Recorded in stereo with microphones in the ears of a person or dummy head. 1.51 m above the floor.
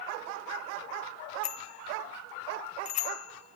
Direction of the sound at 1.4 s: 45° left (ahead or behind).